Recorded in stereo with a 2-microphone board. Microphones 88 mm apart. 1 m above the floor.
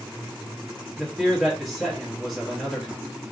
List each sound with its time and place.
1.0 s a man speaking: centre (ahead or behind), 1.2 m